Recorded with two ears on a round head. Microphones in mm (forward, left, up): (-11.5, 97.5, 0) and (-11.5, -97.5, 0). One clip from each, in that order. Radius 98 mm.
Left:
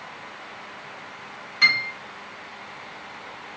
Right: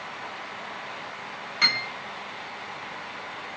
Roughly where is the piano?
Centre.